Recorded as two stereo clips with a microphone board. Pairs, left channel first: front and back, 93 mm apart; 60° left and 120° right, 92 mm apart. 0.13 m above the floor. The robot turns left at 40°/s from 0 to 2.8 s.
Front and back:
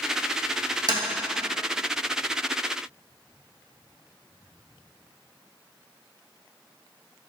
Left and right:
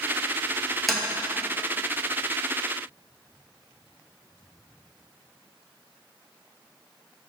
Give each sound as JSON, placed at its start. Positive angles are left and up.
{"t": 0.9, "sound": "tapping", "azimuth_deg": 150, "distance_m": 2.0}